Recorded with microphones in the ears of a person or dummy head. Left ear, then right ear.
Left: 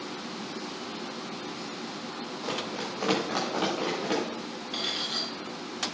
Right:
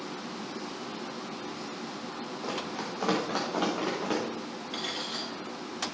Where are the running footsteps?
15° left (ahead or behind), 3 m; by 4.2 s centre (ahead or behind), 5 m.